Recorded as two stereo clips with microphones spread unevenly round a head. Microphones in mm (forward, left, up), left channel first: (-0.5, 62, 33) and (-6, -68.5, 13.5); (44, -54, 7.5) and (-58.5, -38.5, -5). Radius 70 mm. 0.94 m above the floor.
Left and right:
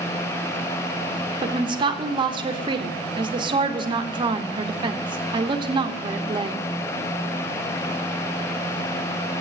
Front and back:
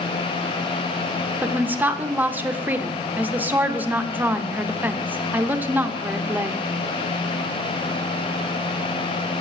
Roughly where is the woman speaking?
Behind right.